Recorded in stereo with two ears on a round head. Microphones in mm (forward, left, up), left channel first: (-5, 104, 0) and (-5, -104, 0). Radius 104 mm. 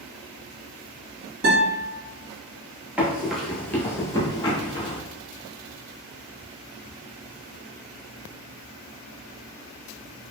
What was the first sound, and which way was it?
A guitar, 60° right (ahead or behind).